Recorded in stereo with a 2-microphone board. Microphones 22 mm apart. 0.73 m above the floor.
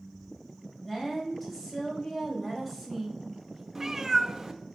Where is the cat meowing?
10° right (ahead or behind), 0.9 m.